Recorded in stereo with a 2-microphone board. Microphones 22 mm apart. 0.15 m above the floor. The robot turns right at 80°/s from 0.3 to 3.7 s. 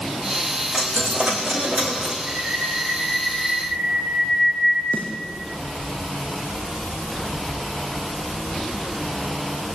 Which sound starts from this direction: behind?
A dropped coin, at 0.7 s.